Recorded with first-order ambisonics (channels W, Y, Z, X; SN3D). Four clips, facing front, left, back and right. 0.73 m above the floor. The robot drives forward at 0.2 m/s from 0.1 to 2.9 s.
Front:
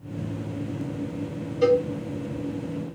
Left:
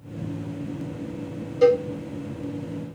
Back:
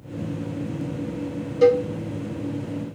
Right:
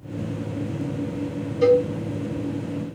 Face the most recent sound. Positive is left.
turn(degrees=160)